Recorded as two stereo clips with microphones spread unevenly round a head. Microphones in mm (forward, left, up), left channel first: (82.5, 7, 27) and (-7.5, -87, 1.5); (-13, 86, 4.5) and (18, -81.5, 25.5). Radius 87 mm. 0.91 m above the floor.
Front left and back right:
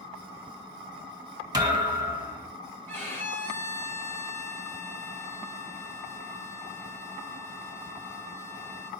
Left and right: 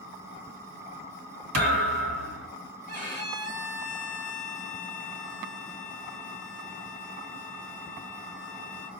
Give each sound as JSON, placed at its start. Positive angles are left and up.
{"t": 1.5, "sound": "a thud", "azimuth_deg": -70, "distance_m": 3.0}
{"t": 2.9, "sound": "a violin", "azimuth_deg": -30, "distance_m": 2.5}